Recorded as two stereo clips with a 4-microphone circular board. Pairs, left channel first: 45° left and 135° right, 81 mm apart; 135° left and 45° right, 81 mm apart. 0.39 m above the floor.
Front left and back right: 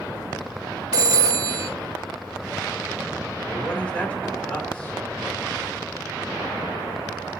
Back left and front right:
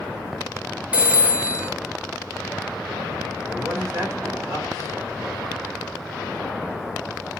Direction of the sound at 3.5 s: 20° right.